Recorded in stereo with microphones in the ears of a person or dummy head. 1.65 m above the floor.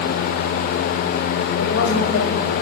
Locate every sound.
1.6 s a woman speaking: 70° left (ahead or behind), 6.5 m